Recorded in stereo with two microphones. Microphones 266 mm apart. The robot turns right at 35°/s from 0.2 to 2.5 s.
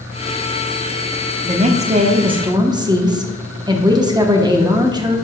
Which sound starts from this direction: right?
A woman speaking, at 1.4 s.